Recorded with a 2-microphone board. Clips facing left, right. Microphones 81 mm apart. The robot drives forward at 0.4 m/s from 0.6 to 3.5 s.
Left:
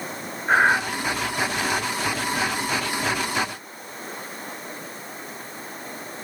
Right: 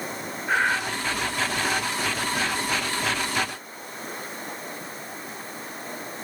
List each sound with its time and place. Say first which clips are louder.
0.5 s breathing: left 5 dB; 35° left (ahead or behind), 0.8 m; by 0.8 s 40° left (ahead or behind), 0.8 m